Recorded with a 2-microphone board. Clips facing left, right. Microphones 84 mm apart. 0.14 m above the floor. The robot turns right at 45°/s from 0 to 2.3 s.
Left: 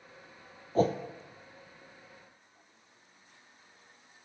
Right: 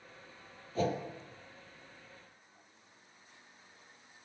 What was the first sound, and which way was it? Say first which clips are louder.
A whoosh: left 6 dB; 40° left (ahead or behind).